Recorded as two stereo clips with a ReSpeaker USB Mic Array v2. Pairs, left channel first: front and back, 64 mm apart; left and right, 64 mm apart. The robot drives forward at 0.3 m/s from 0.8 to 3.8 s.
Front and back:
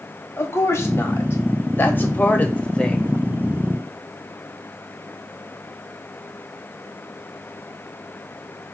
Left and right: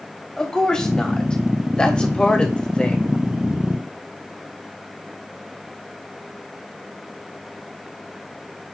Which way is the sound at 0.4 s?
15° left.